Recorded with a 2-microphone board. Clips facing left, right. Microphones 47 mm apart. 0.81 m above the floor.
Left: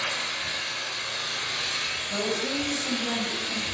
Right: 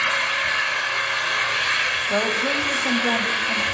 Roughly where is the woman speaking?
Right.